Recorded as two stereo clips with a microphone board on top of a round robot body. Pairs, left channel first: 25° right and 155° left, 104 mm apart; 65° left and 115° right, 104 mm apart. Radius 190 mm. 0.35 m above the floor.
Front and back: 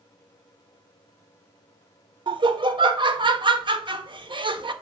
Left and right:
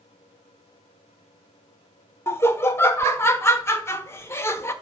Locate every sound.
2.3 s laughter: 130° left, 1.6 m